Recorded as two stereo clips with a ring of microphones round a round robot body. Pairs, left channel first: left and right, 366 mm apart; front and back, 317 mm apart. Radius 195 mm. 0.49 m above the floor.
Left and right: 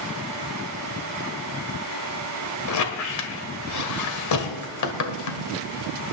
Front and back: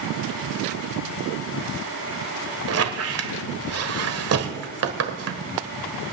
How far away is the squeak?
About 1.6 m.